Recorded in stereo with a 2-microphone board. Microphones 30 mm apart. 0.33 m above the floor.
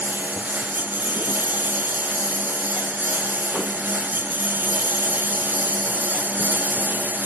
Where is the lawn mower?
75° right (ahead or behind).